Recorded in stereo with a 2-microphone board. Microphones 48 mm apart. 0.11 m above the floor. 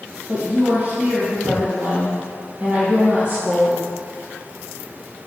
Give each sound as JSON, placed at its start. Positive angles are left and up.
{"t": 0.3, "sound": "a woman speaking", "side_deg": -30, "distance_m": 1.5}